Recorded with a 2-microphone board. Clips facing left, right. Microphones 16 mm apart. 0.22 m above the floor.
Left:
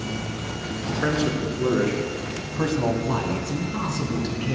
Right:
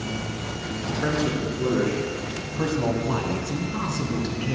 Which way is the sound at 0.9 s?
15° left (ahead or behind).